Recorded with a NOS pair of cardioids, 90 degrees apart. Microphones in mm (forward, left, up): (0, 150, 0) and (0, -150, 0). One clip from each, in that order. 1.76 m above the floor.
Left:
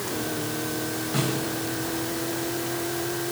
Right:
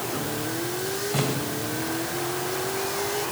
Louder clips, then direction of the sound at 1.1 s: Left 1 dB; 5° right.